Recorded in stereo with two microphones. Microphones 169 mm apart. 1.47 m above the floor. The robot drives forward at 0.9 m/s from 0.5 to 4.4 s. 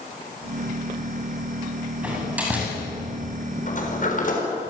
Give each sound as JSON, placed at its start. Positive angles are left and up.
{"t": 2.0, "sound": "a door slam", "side_deg": -10, "distance_m": 9.0}
{"t": 3.7, "sound": "a sliding door", "side_deg": 50, "distance_m": 6.0}